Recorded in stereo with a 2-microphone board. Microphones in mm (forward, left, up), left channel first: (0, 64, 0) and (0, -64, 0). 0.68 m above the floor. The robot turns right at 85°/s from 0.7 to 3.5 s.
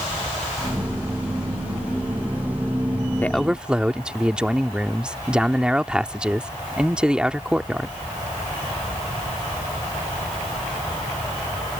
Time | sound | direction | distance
3.2 | a man speaking | 15° left (ahead or behind) | ?